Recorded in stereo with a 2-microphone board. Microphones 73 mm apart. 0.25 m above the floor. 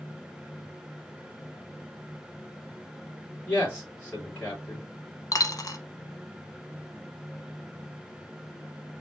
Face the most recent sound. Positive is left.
turn(degrees=60)  # may be behind; listen again after turning